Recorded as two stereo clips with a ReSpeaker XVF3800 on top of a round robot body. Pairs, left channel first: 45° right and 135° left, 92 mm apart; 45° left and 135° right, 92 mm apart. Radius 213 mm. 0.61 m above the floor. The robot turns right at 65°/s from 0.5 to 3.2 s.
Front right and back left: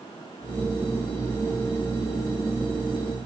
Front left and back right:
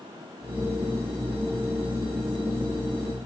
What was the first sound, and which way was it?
Only background noise.